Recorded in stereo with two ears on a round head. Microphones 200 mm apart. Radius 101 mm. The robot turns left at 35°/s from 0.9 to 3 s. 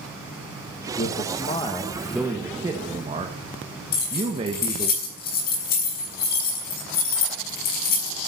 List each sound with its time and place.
1.0 s a man speaking: 40° left, 1.5 m; by 4.9 s 30° right, 1.5 m
3.9 s keys jangling: 45° left (ahead or behind), 6.5 m